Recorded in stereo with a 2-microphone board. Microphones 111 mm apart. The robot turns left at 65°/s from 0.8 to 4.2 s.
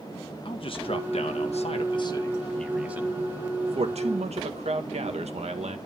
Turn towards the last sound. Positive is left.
turn(degrees=-75)  # may be behind; listen again after turning